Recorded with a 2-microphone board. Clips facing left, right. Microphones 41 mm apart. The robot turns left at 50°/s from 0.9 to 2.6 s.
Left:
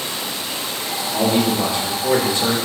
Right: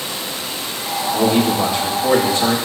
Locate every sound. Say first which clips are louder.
1.1 s a man speaking: right 2 dB; straight ahead, 1.8 m; by 2.5 s 75° right, 1.8 m